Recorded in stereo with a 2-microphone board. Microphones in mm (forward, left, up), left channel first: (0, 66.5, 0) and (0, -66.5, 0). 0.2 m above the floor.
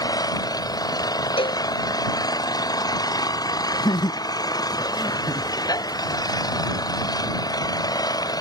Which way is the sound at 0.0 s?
30° left (ahead or behind).